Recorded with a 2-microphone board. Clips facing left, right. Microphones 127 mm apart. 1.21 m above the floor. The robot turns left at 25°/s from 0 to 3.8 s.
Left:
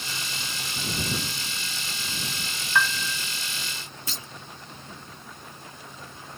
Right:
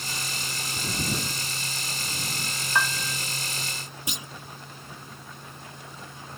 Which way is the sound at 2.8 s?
20° right (ahead or behind).